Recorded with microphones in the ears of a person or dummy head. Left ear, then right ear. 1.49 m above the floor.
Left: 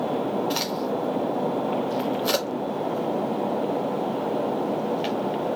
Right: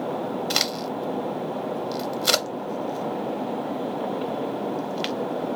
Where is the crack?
30° right (ahead or behind), 0.7 m.